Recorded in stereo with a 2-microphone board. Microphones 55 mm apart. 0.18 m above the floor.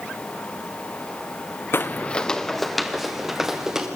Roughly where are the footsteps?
Left.